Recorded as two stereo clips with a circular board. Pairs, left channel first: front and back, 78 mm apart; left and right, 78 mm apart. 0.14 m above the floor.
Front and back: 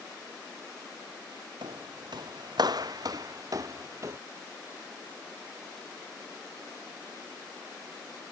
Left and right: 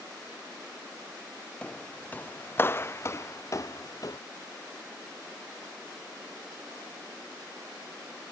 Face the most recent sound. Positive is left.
turn(degrees=130)